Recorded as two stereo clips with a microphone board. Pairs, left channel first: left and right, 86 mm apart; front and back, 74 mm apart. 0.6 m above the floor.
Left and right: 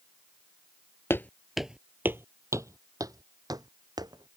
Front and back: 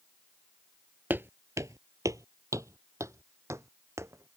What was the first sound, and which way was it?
Footsteps, 135° left.